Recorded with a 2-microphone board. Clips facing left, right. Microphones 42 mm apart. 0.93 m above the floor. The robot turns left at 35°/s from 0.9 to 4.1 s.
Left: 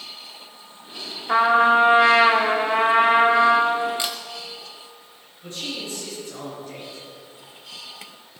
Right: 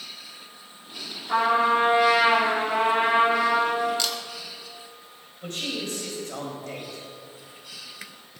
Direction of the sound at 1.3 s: 135° left.